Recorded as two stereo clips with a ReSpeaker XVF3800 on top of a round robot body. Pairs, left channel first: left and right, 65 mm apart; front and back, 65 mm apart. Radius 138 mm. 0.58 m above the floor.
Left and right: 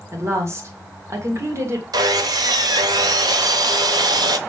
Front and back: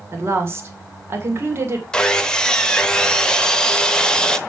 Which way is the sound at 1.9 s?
80° right.